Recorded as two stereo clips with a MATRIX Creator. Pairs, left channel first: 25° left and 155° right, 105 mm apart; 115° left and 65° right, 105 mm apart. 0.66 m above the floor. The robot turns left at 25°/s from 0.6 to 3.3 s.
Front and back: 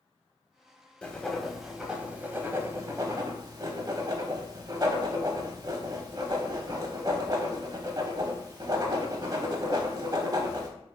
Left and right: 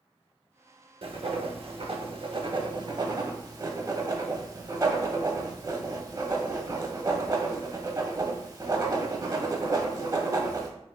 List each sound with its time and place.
1.0 s writing: 55° right, 0.6 m; by 10.7 s 115° right, 0.6 m